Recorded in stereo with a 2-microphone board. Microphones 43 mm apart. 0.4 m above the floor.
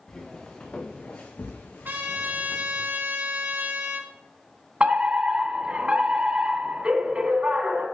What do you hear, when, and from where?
0.1 s footsteps: 20° left (ahead or behind), 3 m; by 2.9 s 80° left, 2.5 m
1.9 s a trumpet: 50° right (ahead or behind), 2 m
4.8 s a fire alarm: 25° right (ahead or behind), 2 m